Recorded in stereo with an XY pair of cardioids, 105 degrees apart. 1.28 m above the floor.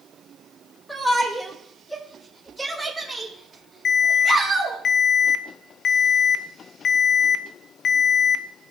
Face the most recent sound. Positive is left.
turn(degrees=55)